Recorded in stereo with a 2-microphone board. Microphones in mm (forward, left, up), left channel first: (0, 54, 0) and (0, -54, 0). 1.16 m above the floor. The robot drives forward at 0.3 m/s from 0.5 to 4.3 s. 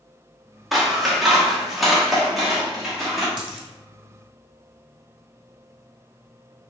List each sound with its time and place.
0.7 s scissors: centre (ahead or behind), 0.8 m
3.4 s a dropped coin: 5° right (ahead or behind), 1.5 m